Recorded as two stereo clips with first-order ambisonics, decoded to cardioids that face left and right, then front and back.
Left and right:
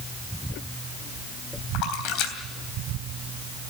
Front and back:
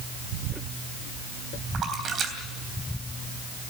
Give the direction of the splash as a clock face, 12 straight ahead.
8 o'clock.